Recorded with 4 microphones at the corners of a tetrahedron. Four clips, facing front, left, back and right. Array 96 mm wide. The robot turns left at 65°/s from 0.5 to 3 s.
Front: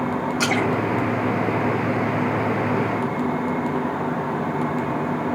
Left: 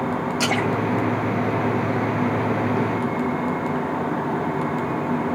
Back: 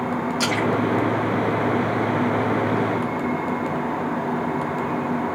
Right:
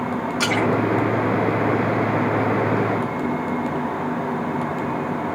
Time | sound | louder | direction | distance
0.4 | a splash | right 4 dB, even | 45° right | 6 m